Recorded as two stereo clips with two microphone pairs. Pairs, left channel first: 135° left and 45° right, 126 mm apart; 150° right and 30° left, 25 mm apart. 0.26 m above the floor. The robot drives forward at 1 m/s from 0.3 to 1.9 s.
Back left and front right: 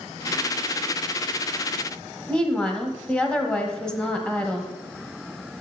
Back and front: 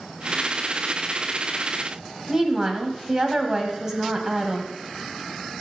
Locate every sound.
2.3 s a woman speaking: 60° left, 1.2 m